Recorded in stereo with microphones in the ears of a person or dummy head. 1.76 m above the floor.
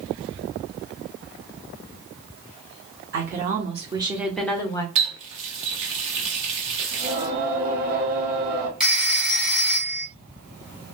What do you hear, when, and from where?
3.1 s a woman speaking: 55° right (ahead or behind), 1.1 m; by 4.8 s 25° left (ahead or behind), 0.9 m
5.0 s a running tap: 35° right (ahead or behind), 0.9 m
6.9 s singing: 50° right (ahead or behind), 1.4 m
8.8 s a phone ringing: 5° right (ahead or behind), 1.0 m